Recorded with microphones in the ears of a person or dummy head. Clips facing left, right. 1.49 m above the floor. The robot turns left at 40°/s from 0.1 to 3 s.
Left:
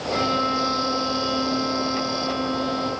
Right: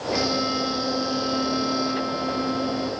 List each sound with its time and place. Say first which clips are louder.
0.1 s a violin: even; 15° left, 8 m; by 2.9 s 95° right, 8 m